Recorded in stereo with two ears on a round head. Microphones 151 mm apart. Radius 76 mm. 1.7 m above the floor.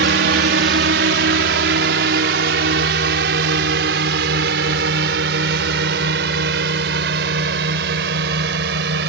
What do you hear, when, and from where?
0.0 s a drone: 70° right (ahead or behind)